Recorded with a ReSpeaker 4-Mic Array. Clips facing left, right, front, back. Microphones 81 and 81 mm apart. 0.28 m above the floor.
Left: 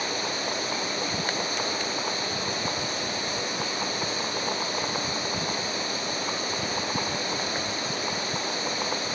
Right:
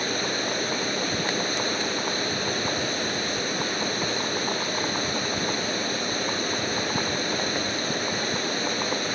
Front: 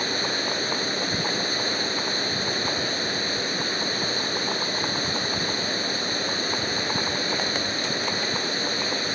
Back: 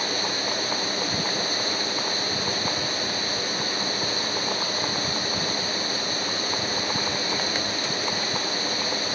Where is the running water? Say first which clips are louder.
Right 2 dB, front 1 dB; 55° right, 5 m.